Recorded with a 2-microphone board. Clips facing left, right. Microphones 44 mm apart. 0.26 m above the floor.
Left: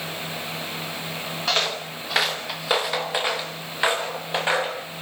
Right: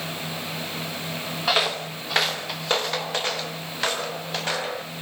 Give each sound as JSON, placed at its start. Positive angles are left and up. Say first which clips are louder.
{"t": 1.5, "sound": "footsteps", "louder": "right 2 dB", "side_deg": -10, "distance_m": 2.5}